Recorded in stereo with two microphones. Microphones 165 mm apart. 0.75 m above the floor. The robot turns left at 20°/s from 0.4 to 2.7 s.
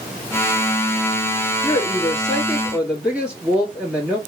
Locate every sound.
1.6 s a woman speaking: 10° left (ahead or behind), 1.5 m; by 4.2 s 5° right (ahead or behind), 1.5 m